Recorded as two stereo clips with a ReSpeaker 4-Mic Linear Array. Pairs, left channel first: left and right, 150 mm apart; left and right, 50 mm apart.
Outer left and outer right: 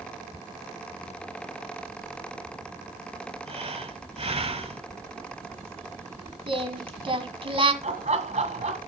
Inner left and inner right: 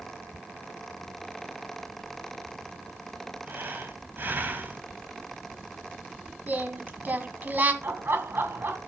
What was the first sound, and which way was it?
Breathing, 45° right (ahead or behind).